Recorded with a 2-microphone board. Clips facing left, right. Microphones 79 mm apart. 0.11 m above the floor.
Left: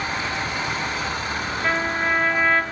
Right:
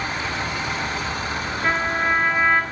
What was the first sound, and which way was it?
A trumpet, 10° right (ahead or behind).